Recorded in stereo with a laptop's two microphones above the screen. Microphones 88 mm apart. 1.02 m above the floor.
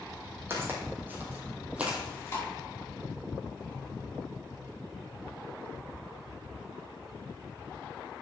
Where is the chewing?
35° left (ahead or behind), 3 m.